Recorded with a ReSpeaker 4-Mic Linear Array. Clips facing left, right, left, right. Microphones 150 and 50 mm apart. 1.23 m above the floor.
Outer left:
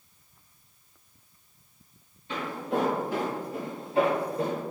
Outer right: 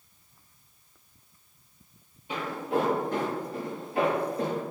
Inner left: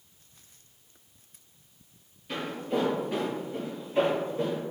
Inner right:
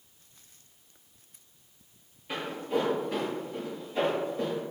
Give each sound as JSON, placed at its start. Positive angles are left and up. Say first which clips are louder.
{"t": 2.3, "sound": "footsteps", "louder": "outer right 1 dB, even", "side_deg": -15, "distance_m": 1.2}